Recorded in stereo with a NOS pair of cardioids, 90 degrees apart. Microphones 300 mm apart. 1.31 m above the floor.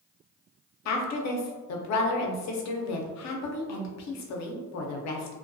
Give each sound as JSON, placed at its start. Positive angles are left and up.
{"t": 0.8, "sound": "a woman speaking", "azimuth_deg": 65, "distance_m": 0.7}